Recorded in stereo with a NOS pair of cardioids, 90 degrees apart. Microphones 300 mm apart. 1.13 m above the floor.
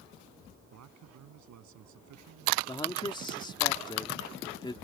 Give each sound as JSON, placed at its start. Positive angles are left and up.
{"t": 0.7, "sound": "a man speaking", "azimuth_deg": -70}
{"t": 2.7, "sound": "a man speaking", "azimuth_deg": 15}